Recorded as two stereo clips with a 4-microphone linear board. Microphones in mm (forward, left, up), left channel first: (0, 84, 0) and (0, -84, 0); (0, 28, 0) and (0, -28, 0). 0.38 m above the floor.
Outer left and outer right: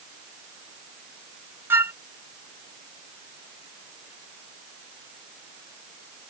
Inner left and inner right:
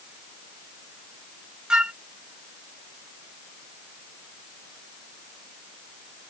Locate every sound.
1.7 s a flute: 15° right (ahead or behind)